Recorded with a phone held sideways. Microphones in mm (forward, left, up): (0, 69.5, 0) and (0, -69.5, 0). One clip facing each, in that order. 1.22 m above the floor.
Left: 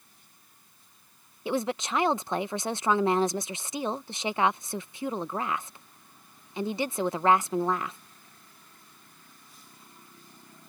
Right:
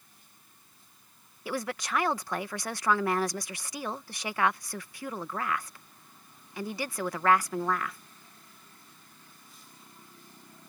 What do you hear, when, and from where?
1.4 s a woman speaking: 25° left (ahead or behind)